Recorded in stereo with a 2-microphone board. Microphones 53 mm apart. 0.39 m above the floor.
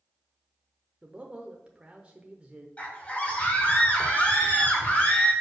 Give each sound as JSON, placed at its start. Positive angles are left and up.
{"t": 1.0, "sound": "a man speaking", "side_deg": -20, "distance_m": 0.8}
{"t": 2.8, "sound": "a scream", "side_deg": 25, "distance_m": 1.5}